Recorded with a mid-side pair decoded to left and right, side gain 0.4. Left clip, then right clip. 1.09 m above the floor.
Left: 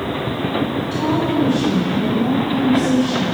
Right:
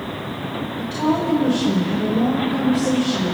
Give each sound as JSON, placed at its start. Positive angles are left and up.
{"t": 0.8, "sound": "a woman speaking", "azimuth_deg": -15, "distance_m": 4.0}